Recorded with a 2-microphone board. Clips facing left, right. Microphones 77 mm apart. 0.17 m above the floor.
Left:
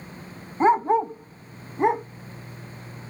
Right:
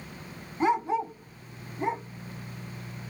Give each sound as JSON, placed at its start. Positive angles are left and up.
{"t": 0.6, "sound": "a dog barking", "side_deg": 30, "distance_m": 0.5}